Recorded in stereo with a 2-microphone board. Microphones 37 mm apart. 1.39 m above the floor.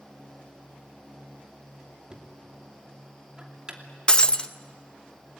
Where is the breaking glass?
25° left (ahead or behind), 0.7 m.